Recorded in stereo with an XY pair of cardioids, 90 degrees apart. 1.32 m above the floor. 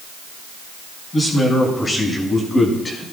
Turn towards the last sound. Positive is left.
turn(degrees=25)